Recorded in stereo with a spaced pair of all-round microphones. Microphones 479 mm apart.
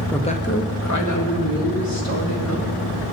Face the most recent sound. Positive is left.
turn(degrees=50)  # may be behind; listen again after turning